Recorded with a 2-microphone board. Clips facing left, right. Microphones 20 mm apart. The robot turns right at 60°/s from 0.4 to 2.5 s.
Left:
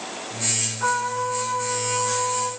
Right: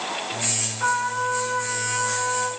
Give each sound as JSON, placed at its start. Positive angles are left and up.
{"t": 0.8, "sound": "a trumpet", "azimuth_deg": -170, "distance_m": 6.0}